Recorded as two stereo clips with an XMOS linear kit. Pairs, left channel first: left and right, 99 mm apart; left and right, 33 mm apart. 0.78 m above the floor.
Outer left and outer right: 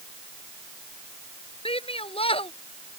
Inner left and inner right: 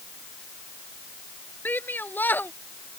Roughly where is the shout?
Left.